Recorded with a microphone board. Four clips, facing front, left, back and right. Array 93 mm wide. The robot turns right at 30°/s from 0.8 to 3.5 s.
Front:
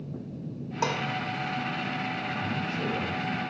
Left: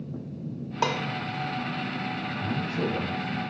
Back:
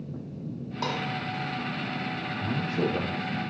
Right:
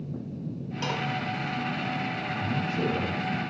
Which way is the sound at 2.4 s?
170° left.